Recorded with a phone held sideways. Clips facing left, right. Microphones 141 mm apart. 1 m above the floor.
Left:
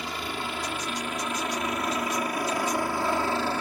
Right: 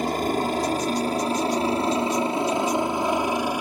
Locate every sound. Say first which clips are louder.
0.0 s a helicopter: right 10 dB; 45° right (ahead or behind); by 3.6 s 15° right (ahead or behind)